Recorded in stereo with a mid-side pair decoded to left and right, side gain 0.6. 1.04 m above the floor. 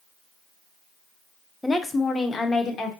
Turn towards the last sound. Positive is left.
turn(degrees=45)